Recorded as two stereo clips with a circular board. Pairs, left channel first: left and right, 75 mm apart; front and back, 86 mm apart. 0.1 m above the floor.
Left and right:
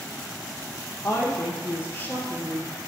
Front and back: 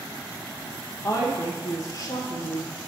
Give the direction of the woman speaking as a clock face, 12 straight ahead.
11 o'clock.